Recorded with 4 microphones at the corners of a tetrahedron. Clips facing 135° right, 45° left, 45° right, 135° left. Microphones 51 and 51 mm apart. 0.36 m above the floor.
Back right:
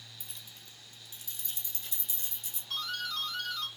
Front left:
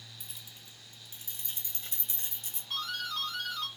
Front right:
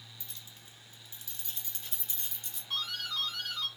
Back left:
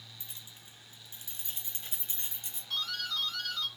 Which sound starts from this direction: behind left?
Keys jangling, at 0.2 s.